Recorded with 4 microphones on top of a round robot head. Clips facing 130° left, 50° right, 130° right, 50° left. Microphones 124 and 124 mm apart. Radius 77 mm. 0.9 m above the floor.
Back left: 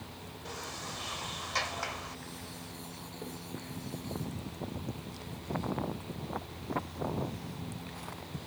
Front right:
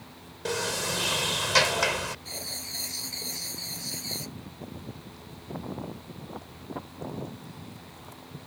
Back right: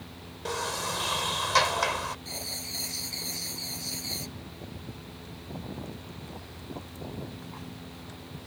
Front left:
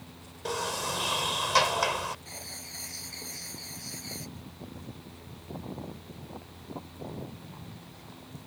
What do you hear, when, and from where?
0.5 s a sliding door: 35° right
2.2 s writing: 65° right